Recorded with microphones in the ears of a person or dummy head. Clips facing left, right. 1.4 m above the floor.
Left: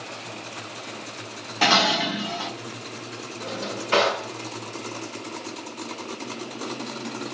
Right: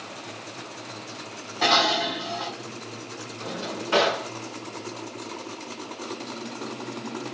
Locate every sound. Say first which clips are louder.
1.6 s dishes clattering: left 1 dB; 45° left (ahead or behind), 1.0 m
3.4 s a drawer: left 1 dB; 35° left (ahead or behind), 1.6 m